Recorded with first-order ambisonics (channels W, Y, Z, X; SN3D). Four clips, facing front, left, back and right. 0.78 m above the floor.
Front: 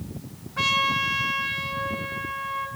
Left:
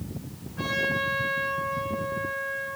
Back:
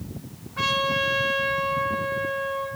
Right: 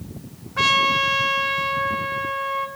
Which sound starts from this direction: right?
A trumpet, at 0.6 s.